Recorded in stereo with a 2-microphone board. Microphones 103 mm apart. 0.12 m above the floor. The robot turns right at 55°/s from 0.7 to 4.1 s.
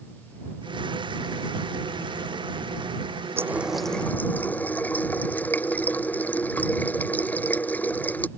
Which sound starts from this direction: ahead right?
A running tap, at 3.4 s.